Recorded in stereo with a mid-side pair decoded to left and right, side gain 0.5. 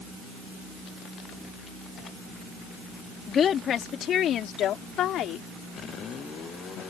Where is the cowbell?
No cowbell in this recording.